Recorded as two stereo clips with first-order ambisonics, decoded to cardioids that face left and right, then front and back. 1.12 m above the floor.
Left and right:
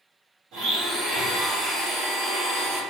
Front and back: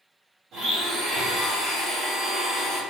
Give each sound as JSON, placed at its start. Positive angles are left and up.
{"t": 0.5, "sound": "a blender", "azimuth_deg": -130, "distance_m": 1.5}